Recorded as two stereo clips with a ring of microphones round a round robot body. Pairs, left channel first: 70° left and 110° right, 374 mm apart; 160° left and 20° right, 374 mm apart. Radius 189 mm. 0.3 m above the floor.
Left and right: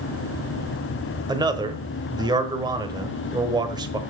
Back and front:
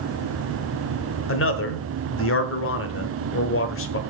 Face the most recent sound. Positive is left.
turn(degrees=175)